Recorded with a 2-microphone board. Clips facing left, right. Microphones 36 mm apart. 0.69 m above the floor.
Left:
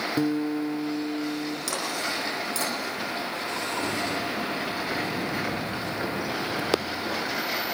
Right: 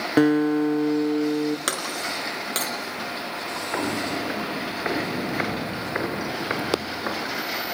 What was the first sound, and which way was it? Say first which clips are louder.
A guitar: right 9 dB; 65° right (ahead or behind).